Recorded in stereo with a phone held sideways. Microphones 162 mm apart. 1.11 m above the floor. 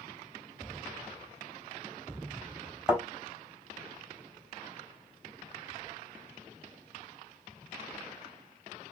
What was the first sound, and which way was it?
A thud, 5° right (ahead or behind).